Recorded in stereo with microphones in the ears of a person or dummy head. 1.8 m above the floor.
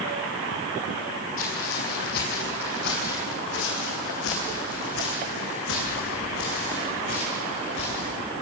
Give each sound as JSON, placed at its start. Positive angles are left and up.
{"t": 1.4, "sound": "footsteps", "side_deg": 45, "distance_m": 5.0}